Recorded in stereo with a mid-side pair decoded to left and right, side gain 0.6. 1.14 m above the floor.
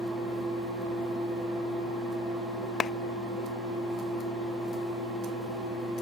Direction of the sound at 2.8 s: 40° left.